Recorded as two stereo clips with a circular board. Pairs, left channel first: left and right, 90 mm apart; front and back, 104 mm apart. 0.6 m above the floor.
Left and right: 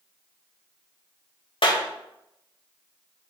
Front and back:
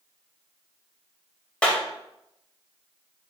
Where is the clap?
80° left, 1.9 m.